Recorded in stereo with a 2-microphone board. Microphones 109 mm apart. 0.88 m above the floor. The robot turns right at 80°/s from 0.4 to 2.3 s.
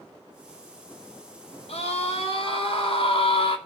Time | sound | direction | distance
1.7 | a scream | 65° left | 3.5 m